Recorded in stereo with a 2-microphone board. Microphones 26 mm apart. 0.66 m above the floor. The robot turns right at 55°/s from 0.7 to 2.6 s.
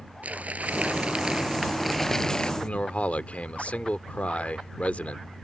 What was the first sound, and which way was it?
Crumpling, 65° right.